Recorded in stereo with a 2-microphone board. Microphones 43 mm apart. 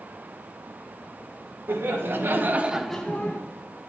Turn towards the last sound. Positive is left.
turn(degrees=50)  # may be behind; listen again after turning